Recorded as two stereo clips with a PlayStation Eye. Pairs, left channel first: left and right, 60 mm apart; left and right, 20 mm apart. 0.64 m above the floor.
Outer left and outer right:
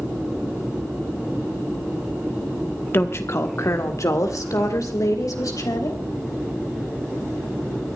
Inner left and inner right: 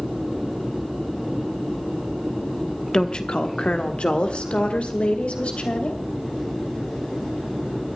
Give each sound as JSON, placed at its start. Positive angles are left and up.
{"t": 2.9, "sound": "a woman speaking", "side_deg": 40, "distance_m": 1.0}